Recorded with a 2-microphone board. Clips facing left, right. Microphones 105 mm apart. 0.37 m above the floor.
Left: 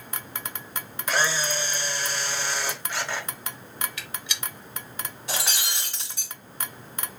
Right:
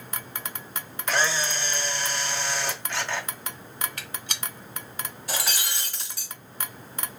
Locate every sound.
1.1 s a camera shutter: 10° left (ahead or behind), 0.9 m
4.0 s a gunshot: 45° right (ahead or behind), 0.9 m
5.3 s breaking glass: 20° left (ahead or behind), 2.0 m